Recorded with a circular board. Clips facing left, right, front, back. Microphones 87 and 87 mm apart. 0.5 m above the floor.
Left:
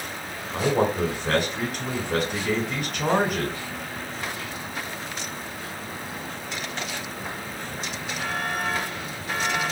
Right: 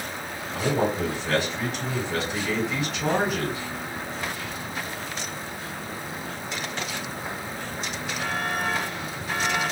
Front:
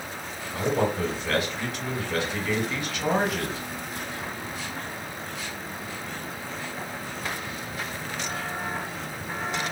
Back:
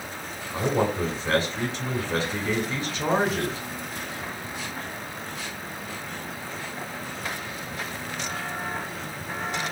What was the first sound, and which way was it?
A man speaking, 125° left.